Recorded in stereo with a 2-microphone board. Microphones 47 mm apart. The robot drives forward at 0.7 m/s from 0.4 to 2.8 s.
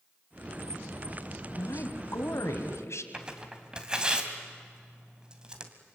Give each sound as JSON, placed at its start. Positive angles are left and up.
{"t": 1.6, "sound": "a woman speaking", "side_deg": 65, "distance_m": 2.5}
{"t": 3.1, "sound": "tearing paper", "side_deg": -15, "distance_m": 2.0}